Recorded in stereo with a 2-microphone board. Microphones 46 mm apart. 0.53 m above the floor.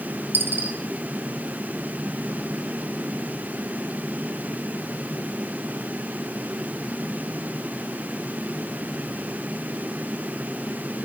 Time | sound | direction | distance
0.3 | a dropped coin | 50° right (ahead or behind) | 1.0 m